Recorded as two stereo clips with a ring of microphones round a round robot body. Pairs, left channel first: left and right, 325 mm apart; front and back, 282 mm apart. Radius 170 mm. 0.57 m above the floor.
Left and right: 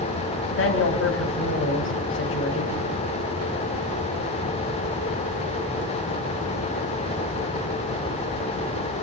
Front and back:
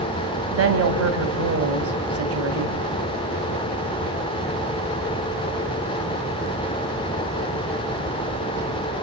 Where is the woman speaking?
145° left, 3.5 m.